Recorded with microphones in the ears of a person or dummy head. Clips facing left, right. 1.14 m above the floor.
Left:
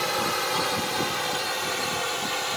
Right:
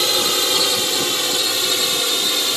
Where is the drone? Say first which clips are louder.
Right 5 dB; 55° right (ahead or behind).